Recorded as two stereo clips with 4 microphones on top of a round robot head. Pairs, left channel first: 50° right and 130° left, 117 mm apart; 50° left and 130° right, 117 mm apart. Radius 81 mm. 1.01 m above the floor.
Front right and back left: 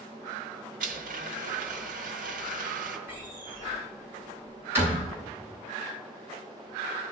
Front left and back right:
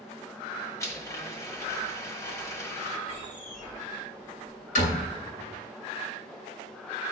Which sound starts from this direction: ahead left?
A door slam, at 3.1 s.